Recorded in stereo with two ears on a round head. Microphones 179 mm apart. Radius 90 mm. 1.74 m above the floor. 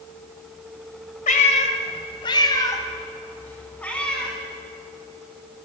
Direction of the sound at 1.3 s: 40° left (ahead or behind).